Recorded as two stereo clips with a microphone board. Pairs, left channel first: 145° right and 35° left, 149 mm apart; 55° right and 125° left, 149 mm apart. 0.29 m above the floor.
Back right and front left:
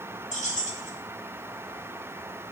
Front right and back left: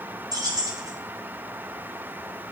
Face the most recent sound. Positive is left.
turn(degrees=-175)